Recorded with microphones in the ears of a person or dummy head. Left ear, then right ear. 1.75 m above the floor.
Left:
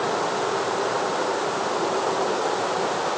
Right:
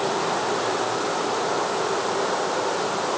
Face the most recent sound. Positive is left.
No sound to turn to.